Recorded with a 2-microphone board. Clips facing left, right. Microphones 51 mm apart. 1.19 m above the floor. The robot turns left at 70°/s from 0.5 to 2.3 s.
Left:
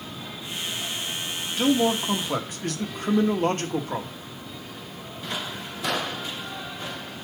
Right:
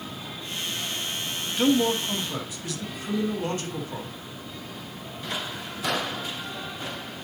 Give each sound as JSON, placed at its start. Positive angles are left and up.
{"t": 1.6, "sound": "a man speaking", "azimuth_deg": -175, "distance_m": 1.3}